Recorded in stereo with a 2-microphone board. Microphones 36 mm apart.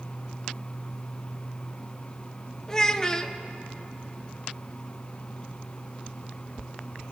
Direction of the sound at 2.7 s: 20° left (ahead or behind).